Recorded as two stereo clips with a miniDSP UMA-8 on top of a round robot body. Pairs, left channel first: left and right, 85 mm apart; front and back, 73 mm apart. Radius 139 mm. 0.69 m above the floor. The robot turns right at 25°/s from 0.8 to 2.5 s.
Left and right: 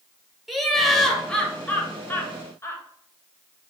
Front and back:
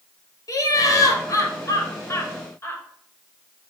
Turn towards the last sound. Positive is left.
turn(degrees=45)